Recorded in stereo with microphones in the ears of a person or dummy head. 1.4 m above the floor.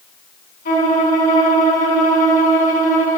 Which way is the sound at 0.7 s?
45° left (ahead or behind).